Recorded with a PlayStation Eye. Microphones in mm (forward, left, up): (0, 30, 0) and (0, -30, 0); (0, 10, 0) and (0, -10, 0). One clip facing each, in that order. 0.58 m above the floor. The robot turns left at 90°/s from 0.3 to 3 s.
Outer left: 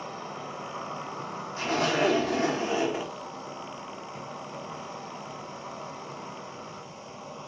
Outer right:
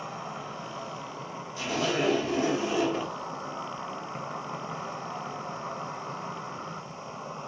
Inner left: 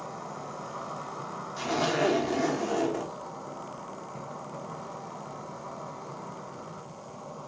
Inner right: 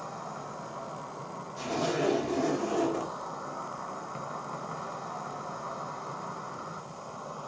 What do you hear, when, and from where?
0.0 s an insect: 170° right, 1.4 m; by 7.5 s 55° right, 1.4 m
1.6 s a zipper: 140° left, 0.8 m; by 3.1 s 10° left, 0.8 m